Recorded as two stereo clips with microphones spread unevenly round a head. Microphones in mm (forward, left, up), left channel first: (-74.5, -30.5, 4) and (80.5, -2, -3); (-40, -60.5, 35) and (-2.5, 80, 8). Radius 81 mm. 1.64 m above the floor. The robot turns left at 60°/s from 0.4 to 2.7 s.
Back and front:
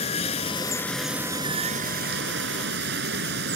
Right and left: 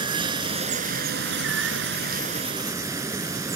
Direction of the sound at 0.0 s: 140° left.